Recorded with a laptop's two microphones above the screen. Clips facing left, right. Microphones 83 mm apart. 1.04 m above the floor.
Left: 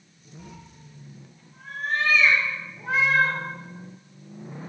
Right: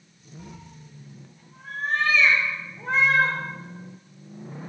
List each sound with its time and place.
0.4 s a cat meowing: 15° right (ahead or behind), 3 m; by 3.4 s 10° left (ahead or behind), 6.5 m